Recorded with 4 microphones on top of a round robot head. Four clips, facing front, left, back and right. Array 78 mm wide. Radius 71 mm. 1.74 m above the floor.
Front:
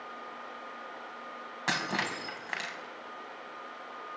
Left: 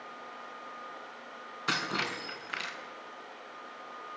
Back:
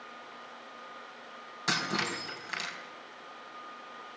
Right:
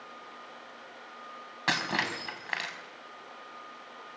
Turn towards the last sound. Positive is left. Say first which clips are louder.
# right 3 dB, even
turn(degrees=-60)